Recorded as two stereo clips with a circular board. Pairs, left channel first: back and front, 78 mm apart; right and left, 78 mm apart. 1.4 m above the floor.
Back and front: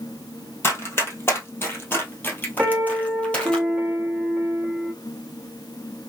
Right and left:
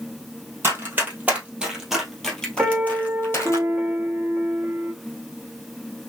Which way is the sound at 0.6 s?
135° left.